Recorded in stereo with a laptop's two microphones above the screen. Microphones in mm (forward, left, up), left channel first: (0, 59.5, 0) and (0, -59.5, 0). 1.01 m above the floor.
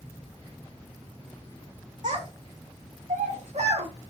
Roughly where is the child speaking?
Right.